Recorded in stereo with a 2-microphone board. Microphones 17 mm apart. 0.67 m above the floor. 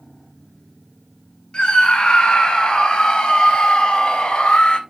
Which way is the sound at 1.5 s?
70° left (ahead or behind).